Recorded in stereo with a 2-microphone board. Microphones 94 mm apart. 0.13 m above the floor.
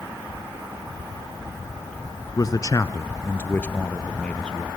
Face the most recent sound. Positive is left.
turn(degrees=10)  # may be behind; listen again after turning